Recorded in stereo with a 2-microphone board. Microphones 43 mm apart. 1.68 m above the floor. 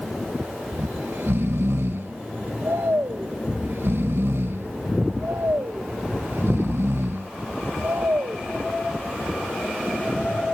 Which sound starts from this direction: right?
Snoring, at 0.7 s.